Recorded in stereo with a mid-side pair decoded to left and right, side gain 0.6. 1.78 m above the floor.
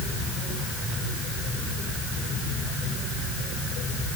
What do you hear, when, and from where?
Only background noise.